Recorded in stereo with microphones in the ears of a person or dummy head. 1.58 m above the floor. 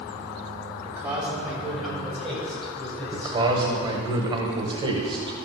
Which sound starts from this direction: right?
A man speaking, at 3.1 s.